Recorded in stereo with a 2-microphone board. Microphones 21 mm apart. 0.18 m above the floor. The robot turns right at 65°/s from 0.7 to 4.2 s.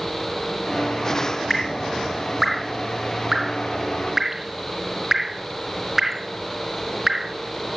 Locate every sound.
1.5 s dripping: 20° left (ahead or behind), 0.6 m; by 7.3 s 20° right (ahead or behind), 0.6 m